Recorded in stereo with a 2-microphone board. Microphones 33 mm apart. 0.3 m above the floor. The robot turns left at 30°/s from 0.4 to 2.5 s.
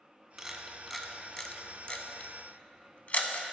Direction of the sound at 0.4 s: 15° right (ahead or behind).